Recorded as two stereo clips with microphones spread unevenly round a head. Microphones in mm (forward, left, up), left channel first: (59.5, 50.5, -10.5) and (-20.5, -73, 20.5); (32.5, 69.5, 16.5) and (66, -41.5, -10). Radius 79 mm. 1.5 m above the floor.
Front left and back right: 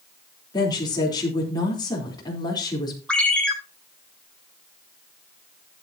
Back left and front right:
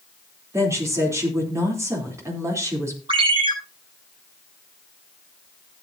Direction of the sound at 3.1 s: 30° right.